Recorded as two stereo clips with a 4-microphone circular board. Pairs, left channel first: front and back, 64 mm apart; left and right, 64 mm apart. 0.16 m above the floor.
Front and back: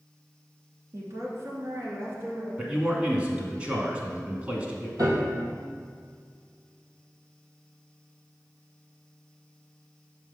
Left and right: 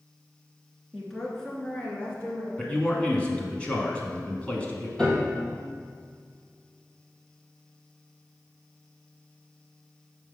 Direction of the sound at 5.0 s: 165° left.